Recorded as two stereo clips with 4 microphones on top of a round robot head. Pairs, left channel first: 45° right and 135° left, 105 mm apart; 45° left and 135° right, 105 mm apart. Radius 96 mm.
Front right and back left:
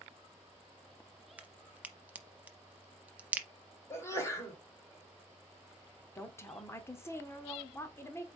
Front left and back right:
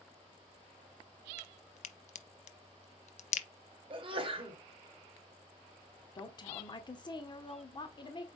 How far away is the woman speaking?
About 1.1 m.